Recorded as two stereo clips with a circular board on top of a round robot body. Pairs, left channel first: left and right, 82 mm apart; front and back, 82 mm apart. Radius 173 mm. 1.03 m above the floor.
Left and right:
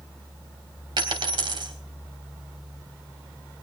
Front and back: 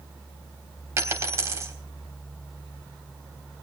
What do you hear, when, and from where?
1.0 s a dropped coin: 120° right, 3.5 m